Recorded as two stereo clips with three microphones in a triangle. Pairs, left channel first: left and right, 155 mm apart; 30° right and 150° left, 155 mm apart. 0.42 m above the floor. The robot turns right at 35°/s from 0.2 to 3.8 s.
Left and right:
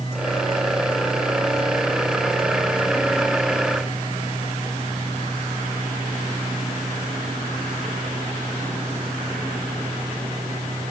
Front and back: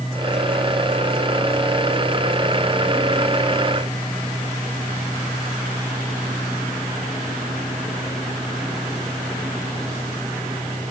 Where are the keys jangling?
I don't hear keys jangling.